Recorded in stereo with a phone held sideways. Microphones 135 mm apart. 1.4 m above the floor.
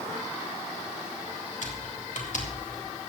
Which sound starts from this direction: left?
Typing on a keyboard, at 1.6 s.